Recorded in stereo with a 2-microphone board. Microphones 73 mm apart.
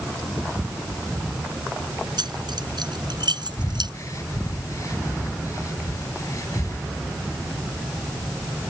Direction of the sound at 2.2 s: 85° right.